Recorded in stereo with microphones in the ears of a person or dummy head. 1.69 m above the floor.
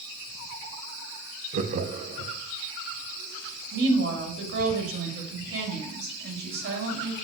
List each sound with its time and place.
1.5 s laughter: 40° right (ahead or behind), 0.7 m
3.7 s a woman speaking: 70° right (ahead or behind), 2.5 m